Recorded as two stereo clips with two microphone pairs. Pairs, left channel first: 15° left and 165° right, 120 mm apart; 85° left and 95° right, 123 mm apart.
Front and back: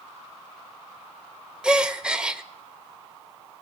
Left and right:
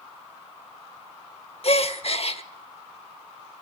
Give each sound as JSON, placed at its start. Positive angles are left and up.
{"t": 1.6, "sound": "a gasp", "azimuth_deg": 110, "distance_m": 0.9}